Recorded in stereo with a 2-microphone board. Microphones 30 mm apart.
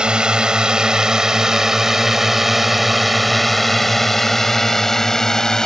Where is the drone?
35° right (ahead or behind); by 5.7 s 20° left (ahead or behind).